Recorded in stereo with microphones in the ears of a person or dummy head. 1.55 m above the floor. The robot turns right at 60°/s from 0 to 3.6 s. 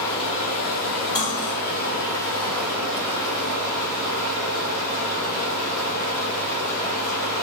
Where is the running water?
20° left, 0.9 m; by 7.4 s 125° right, 0.9 m.